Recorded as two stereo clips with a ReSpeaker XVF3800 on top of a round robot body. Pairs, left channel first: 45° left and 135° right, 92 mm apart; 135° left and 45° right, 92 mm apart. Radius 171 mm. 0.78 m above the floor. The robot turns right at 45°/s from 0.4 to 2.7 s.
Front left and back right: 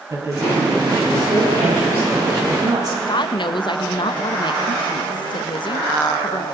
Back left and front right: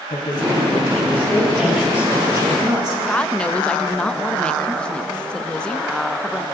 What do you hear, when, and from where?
0.1 s a woman speaking: 170° left, 7 m; by 3.0 s 90° right, 7 m
3.1 s a woman speaking: 60° left, 1.2 m